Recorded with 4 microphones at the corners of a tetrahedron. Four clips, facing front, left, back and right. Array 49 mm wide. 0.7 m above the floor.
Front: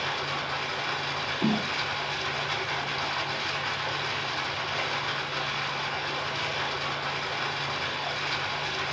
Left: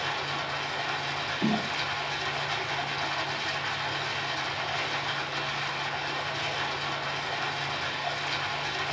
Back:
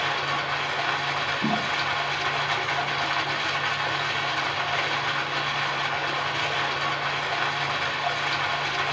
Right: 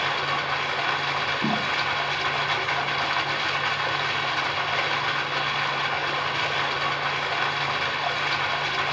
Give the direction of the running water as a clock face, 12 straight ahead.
4 o'clock.